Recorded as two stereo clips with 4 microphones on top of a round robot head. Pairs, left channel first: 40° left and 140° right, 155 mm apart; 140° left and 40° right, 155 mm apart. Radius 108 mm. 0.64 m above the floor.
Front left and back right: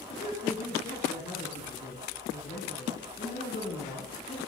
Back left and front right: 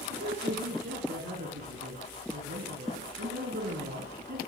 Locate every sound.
0.1 s a woman speaking: 10° right, 7 m